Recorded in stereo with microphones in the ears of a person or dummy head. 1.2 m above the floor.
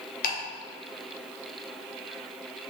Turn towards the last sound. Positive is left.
turn(degrees=50)  # may be behind; listen again after turning